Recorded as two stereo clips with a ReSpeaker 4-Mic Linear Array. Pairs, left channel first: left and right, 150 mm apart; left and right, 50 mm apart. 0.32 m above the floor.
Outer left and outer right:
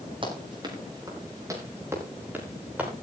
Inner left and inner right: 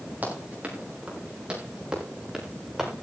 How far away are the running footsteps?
About 6.5 m.